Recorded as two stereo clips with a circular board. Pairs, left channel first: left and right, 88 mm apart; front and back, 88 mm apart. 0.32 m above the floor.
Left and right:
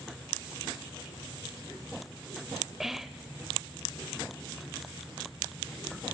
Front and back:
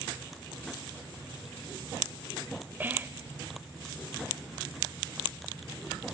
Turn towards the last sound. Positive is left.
turn(degrees=-170)